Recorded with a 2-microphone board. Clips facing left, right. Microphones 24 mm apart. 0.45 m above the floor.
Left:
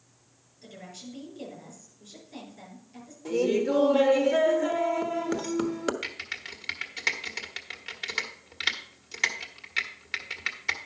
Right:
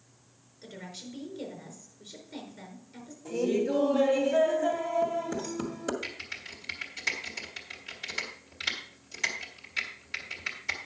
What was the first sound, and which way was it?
A woman speaking, 15° right (ahead or behind).